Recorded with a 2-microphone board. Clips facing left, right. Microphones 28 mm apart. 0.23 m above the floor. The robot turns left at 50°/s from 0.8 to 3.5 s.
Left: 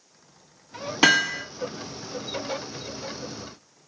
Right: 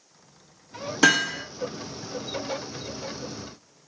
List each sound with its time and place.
1.0 s hammering: 30° left (ahead or behind), 1.9 m; by 1.4 s 10° left (ahead or behind), 1.9 m